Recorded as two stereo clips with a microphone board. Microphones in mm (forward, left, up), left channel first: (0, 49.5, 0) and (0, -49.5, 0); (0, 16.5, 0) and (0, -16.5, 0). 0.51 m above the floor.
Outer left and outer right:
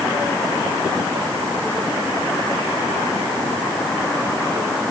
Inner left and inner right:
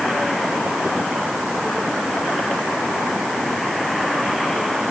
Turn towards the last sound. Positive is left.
No sound to turn to.